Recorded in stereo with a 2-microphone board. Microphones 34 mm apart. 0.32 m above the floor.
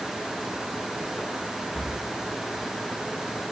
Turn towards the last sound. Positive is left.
turn(degrees=10)  # may be behind; listen again after turning